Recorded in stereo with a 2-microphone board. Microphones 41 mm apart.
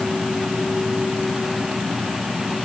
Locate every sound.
Only background noise.